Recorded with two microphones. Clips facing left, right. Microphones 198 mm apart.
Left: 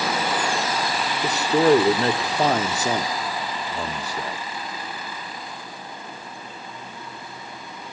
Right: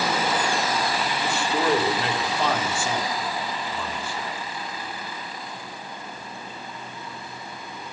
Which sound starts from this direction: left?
A man speaking, at 1.2 s.